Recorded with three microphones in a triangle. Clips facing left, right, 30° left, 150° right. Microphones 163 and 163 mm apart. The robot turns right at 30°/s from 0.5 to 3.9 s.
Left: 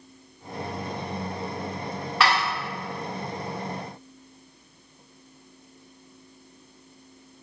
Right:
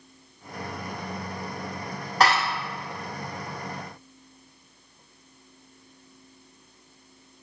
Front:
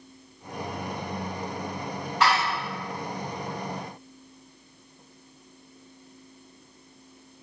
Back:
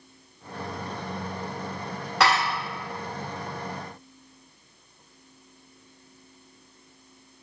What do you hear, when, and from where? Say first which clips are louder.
2.2 s dishes clattering: right 2 dB, back 1 dB; 140° right, 1.5 m; by 2.5 s 135° right, 1.5 m